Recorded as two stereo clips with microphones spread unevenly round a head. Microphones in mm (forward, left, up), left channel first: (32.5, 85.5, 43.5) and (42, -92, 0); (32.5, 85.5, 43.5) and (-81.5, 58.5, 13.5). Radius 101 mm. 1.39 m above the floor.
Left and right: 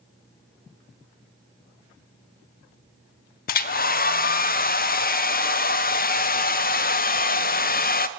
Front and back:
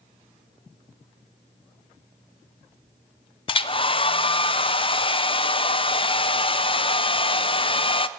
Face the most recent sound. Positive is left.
turn(degrees=55)